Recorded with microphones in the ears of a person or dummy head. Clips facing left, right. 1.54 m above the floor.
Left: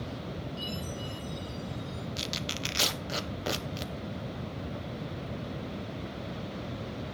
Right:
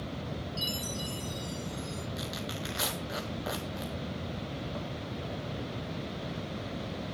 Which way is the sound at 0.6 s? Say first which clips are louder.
Even; 55° right (ahead or behind).